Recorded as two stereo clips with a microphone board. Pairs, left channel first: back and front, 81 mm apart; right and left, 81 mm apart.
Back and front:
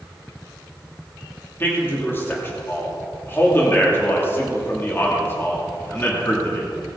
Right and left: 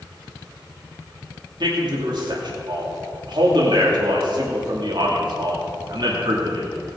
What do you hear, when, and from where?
1.6 s a man speaking: 115° left, 2.5 m